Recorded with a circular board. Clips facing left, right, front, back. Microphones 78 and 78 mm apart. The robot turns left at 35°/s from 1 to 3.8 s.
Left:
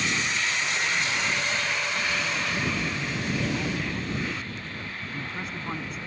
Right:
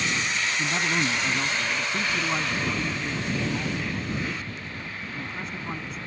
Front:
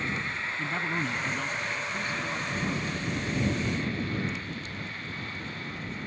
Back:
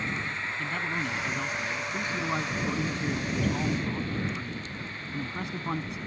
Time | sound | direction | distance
0.6 | a man speaking | 80° right | ?